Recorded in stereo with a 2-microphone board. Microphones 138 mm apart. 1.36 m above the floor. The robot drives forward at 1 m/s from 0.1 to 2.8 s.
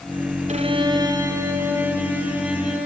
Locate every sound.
0.5 s a violin: 55° right (ahead or behind), 0.6 m; by 2.9 s 10° right (ahead or behind), 2.5 m